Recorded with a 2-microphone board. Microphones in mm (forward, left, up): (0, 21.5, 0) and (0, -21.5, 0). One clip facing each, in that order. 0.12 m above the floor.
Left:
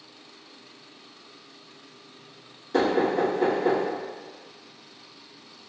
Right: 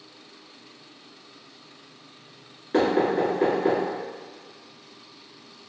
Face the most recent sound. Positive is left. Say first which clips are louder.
# right 1 dB
turn(degrees=-30)  # may be behind; listen again after turning